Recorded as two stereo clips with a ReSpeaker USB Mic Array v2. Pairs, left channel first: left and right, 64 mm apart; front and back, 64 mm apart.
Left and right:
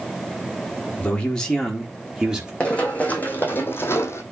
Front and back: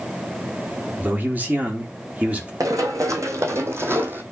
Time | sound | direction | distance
1.0 | a man speaking | 145° left | 1.5 m
2.6 | running footsteps | 160° left | 1.6 m